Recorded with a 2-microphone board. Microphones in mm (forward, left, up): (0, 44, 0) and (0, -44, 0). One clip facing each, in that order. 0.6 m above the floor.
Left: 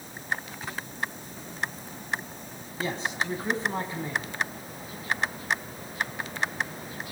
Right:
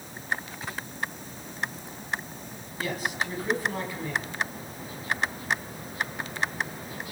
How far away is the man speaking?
About 5.5 m.